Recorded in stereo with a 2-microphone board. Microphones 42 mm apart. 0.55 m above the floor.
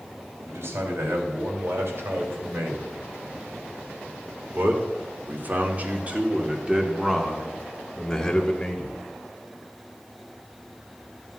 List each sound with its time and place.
0.5 s a man speaking: 70° right (ahead or behind), 4 m; by 9.0 s 20° left (ahead or behind), 2.0 m